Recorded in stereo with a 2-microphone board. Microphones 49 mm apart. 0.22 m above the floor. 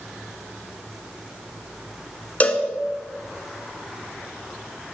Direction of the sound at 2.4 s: 35° left (ahead or behind).